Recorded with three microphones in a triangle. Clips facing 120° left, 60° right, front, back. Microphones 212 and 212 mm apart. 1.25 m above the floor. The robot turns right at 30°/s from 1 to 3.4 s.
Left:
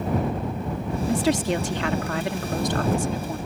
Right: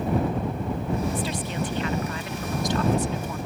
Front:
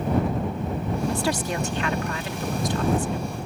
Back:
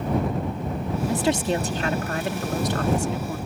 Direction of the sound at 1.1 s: 105° left.